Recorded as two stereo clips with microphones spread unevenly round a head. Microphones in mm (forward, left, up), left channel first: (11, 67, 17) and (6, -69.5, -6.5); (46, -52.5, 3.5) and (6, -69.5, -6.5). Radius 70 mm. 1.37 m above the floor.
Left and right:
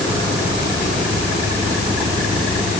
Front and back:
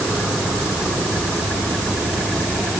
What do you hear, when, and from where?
Only background noise.